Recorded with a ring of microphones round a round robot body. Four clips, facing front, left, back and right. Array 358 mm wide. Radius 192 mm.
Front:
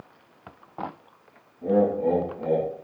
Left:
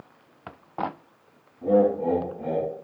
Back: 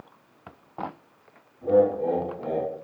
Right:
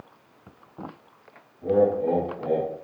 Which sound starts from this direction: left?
Laughter, at 1.6 s.